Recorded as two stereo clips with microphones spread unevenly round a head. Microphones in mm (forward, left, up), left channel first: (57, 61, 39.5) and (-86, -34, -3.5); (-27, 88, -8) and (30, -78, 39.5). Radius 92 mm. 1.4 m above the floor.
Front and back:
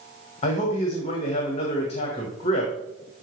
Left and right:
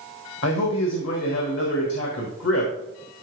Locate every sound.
0.4 s a man speaking: 90° left, 1.6 m